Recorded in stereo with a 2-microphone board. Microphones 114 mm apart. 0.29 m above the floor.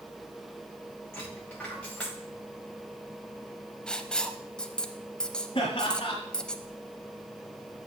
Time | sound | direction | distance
1.1 | a dropped coin | 10° left (ahead or behind) | 5 m
3.9 | writing | 10° left (ahead or behind) | 0.6 m
5.5 | laughter | 50° left (ahead or behind) | 1.7 m